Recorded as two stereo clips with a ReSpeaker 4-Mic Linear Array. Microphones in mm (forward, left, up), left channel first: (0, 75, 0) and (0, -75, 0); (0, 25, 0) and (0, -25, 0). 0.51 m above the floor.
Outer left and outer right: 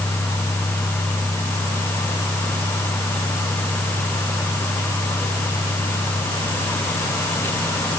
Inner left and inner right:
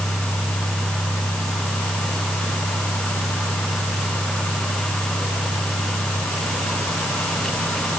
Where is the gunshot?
I don't hear a gunshot.